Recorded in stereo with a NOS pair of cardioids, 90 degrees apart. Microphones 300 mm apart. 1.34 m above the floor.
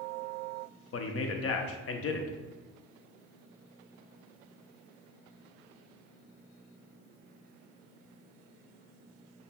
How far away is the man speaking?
About 0.7 m.